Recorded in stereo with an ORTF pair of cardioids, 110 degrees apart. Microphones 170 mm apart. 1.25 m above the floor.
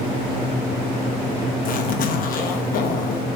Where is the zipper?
60° left, 1.0 m.